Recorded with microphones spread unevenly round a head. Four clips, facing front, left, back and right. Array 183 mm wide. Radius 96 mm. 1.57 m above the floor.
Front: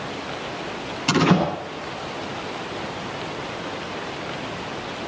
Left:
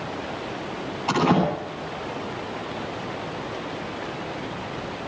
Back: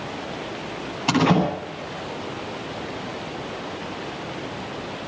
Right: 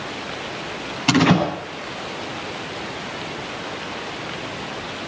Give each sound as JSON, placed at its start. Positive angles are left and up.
{"t": 1.1, "sound": "a door slam", "azimuth_deg": -110, "distance_m": 10.0}